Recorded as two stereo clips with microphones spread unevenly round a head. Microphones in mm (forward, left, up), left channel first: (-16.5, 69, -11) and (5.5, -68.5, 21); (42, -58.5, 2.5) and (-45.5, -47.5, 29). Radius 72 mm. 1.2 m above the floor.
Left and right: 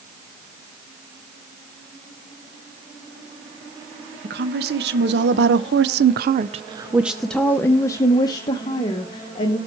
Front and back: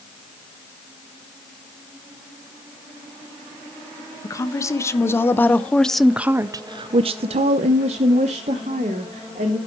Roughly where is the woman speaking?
Ahead right.